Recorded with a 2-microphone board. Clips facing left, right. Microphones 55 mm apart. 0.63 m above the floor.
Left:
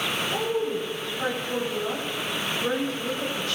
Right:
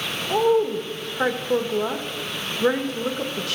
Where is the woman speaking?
65° right (ahead or behind), 1.8 m.